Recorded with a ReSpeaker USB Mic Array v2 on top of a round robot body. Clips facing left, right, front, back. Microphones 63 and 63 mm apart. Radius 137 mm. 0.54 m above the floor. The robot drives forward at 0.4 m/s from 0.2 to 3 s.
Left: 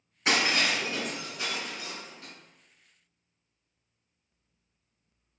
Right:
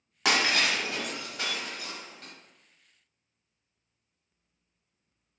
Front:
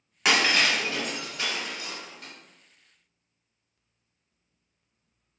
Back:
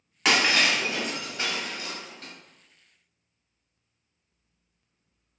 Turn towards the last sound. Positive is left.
turn(degrees=-145)